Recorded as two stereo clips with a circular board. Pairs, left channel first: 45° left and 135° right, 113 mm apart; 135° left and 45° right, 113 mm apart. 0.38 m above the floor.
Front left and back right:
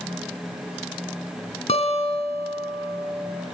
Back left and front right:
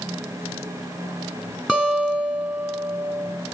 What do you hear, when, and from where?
1.7 s a guitar: 35° left, 2.5 m